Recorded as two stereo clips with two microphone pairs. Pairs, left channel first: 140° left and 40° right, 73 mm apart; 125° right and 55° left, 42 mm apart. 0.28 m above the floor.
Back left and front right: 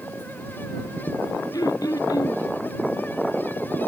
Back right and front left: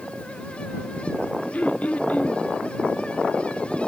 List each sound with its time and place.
1.5 s throat clearing: 175° left